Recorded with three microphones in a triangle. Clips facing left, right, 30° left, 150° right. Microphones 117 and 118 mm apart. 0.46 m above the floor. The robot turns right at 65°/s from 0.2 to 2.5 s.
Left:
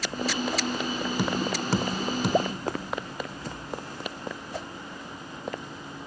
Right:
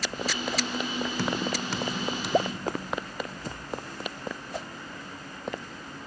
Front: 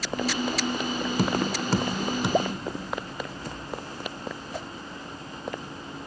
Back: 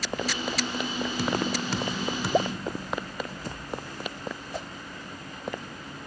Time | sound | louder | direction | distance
1.2 | tapping | left 2 dB, front 1 dB | 20° left | 1.5 m